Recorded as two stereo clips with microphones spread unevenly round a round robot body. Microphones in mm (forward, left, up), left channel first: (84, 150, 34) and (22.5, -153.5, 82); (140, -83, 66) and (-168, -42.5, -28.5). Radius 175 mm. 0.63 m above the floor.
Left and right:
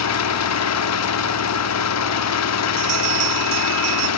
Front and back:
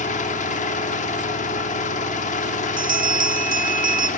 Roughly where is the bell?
Behind right.